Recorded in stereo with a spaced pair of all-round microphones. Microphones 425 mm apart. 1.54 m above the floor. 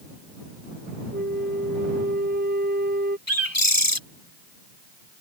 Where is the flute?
20° right (ahead or behind).